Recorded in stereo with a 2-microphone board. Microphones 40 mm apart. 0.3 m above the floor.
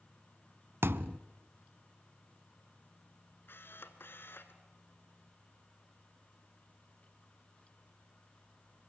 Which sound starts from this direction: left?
A camera shutter, at 3.5 s.